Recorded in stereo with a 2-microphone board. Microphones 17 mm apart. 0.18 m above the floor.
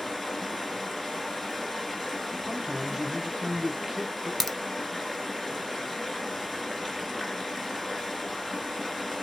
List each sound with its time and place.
0.0 s running water: 15° left (ahead or behind), 1.8 m
2.5 s a man speaking: 25° right (ahead or behind), 1.1 m
4.4 s a crack: 15° left (ahead or behind), 0.7 m